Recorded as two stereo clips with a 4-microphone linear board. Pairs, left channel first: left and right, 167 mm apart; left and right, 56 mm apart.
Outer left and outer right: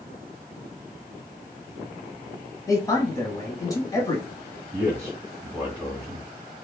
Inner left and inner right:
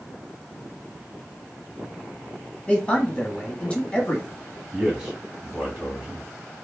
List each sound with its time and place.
2.7 s a man speaking: 20° left (ahead or behind), 1.0 m
4.7 s a man speaking: 15° right (ahead or behind), 1.6 m